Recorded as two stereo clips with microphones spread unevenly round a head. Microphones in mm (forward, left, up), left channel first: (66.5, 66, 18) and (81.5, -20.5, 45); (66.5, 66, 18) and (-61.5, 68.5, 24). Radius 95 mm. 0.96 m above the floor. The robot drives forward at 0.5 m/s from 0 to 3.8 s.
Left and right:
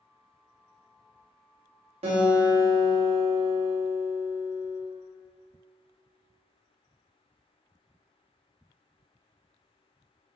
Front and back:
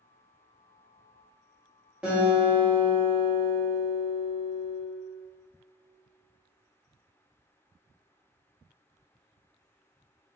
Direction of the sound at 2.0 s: 95° right.